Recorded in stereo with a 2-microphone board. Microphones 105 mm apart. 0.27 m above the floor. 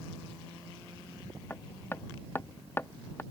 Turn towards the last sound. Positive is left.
turn(degrees=20)  # may be behind; listen again after turning